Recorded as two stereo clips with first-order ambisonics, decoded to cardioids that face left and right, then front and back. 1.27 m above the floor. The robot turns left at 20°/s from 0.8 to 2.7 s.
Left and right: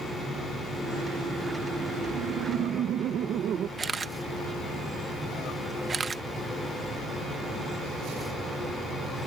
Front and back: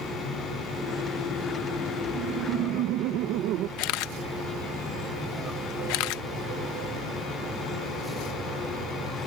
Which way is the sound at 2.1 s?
130° right.